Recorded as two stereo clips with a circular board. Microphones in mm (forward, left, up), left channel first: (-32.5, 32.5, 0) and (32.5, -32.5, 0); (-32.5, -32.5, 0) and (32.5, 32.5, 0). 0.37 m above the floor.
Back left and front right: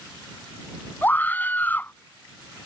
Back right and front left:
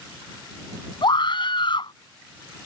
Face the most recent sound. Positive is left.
turn(degrees=-155)